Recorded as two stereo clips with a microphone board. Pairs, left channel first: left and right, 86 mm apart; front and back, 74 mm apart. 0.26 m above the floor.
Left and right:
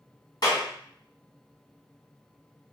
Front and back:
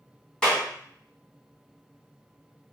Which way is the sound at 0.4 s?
80° left.